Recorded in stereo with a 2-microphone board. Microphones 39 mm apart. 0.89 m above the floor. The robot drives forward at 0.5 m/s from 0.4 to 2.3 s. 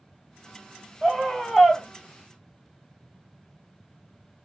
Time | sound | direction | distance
1.0 | a scream | 5° left (ahead or behind) | 1.9 m